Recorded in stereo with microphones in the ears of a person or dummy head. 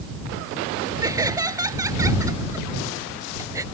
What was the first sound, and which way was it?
Laughter, 20° right (ahead or behind).